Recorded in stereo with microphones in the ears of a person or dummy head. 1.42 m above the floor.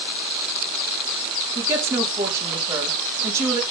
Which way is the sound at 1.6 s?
20° right (ahead or behind).